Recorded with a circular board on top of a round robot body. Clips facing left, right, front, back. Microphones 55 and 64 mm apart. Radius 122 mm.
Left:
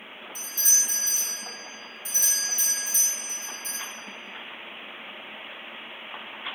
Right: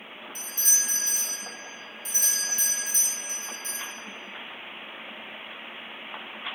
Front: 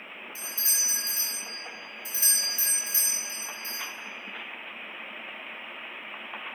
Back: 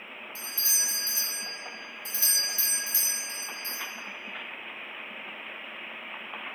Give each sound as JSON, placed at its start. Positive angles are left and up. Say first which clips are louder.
{"t": 0.3, "sound": "a doorbell", "louder": "left 1 dB, back 1 dB", "azimuth_deg": -70, "distance_m": 2.5}